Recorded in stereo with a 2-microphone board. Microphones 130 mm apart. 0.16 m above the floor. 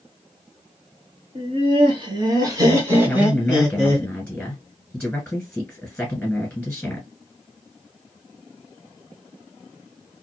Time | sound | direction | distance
1.4 | laughter | 50° right (ahead or behind) | 1.8 m
3.0 | a man speaking | 10° left (ahead or behind) | 1.6 m